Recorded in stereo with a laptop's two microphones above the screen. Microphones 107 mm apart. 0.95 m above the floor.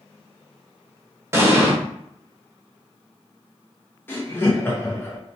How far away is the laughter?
About 0.5 m.